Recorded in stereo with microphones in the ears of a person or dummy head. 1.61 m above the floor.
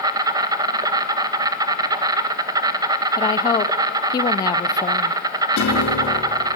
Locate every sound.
0.0 s an insect: 20° right (ahead or behind), 1.9 m
3.2 s a woman speaking: 20° left (ahead or behind), 0.7 m
5.6 s a piano: 75° left (ahead or behind), 5 m